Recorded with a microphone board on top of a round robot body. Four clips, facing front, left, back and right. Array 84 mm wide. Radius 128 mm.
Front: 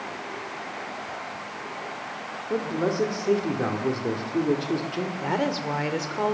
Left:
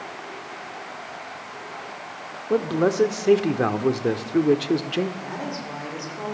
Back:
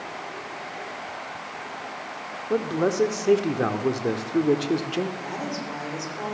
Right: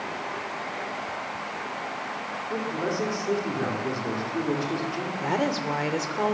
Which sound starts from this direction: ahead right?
A woman speaking, at 5.2 s.